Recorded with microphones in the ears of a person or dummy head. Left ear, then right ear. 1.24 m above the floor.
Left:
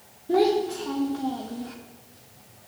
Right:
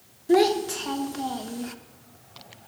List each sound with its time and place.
0.3 s a child speaking: 75° right (ahead or behind), 1.1 m